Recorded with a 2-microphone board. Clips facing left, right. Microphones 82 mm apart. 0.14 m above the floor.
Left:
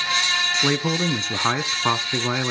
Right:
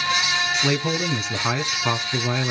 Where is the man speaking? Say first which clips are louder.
Left 3 dB; 25° left (ahead or behind), 1.3 m.